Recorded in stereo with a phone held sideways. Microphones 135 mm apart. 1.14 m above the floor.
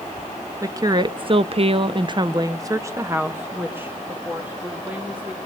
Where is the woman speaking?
25° right (ahead or behind), 0.7 m; by 5.4 s 10° right (ahead or behind), 2.5 m.